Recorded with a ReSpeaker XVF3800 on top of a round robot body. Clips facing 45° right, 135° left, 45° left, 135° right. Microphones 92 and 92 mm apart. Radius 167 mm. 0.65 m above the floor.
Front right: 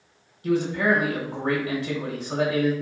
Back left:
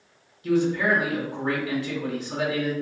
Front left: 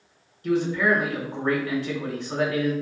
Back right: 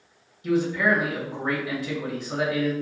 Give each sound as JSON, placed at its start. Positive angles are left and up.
{"t": 0.4, "sound": "a man speaking", "azimuth_deg": -55, "distance_m": 1.1}